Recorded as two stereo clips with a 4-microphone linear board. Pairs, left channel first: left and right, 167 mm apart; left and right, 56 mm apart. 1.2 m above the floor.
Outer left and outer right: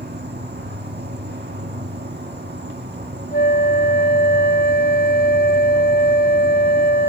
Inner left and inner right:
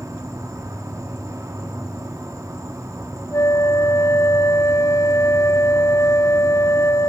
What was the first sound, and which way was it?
An insect, 85° right.